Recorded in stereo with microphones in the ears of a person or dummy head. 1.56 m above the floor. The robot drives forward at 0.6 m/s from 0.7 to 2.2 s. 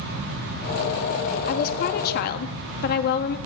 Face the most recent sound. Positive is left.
turn(degrees=60)  # may be behind; listen again after turning